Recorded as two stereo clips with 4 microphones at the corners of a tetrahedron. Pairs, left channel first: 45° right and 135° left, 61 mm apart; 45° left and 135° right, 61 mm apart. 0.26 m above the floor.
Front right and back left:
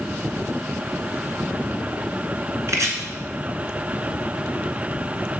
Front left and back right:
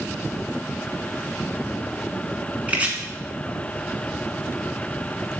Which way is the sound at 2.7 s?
160° left.